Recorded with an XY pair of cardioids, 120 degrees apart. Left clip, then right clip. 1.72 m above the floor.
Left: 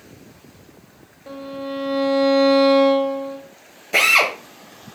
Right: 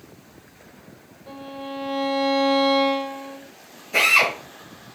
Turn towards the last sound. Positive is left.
turn(degrees=55)